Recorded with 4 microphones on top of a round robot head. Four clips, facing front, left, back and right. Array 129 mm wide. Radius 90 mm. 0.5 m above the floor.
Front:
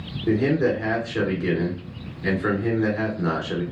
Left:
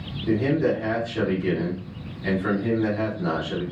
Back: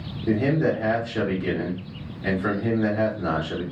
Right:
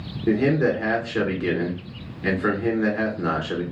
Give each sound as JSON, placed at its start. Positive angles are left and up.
{"t": 0.3, "sound": "a man speaking", "azimuth_deg": -75, "distance_m": 2.0}